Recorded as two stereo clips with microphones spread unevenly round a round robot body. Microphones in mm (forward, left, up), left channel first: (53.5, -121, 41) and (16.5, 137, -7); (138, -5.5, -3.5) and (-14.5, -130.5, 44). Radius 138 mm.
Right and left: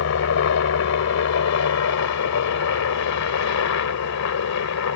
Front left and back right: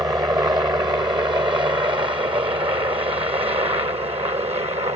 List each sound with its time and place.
0.0 s a helicopter: 65° right; by 5.0 s 80° right